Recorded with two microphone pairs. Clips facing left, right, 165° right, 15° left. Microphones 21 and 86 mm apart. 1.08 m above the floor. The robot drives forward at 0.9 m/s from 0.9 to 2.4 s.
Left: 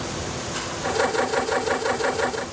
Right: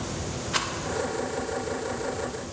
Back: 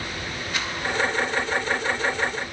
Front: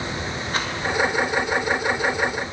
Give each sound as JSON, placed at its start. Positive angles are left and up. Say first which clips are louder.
{"t": 0.5, "sound": "a rattle", "louder": "right 6 dB, front 4 dB", "azimuth_deg": -35, "distance_m": 1.5}